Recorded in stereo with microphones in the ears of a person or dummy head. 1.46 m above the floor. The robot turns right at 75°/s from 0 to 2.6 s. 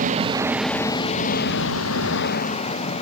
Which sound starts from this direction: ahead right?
An engine running, at 0.0 s.